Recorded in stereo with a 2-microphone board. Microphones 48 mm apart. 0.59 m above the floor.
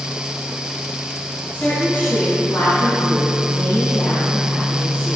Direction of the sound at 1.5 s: 50° left (ahead or behind).